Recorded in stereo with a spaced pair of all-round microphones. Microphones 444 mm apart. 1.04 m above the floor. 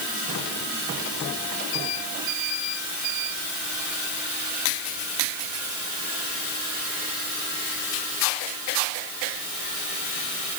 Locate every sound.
Only background noise.